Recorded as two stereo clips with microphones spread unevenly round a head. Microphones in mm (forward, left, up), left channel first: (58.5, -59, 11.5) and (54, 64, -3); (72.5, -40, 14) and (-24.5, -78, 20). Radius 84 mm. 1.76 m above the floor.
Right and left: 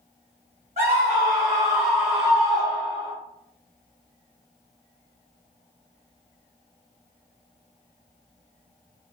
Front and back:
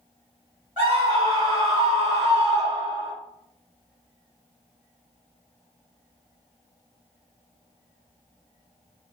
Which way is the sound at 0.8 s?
135° left.